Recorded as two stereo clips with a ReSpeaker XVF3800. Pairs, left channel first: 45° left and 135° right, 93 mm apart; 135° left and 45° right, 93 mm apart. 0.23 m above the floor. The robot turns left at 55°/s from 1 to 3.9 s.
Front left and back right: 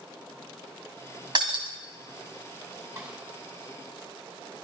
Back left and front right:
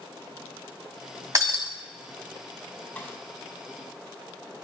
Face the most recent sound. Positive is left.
turn(degrees=135)